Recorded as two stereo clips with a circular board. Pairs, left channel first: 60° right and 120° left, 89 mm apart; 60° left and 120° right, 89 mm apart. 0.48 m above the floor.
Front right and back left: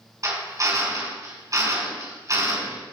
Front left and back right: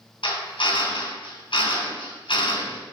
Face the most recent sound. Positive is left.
turn(degrees=70)